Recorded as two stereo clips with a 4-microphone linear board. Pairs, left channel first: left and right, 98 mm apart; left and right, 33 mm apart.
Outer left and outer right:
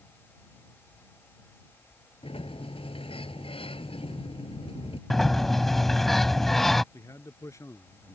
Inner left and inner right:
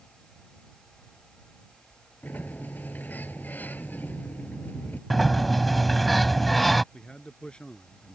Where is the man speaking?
35° left (ahead or behind).